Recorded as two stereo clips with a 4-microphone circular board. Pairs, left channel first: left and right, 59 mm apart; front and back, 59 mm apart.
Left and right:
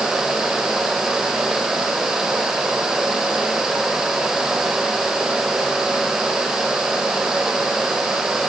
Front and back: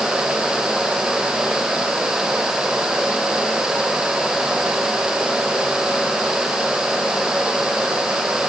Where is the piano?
No piano in this recording.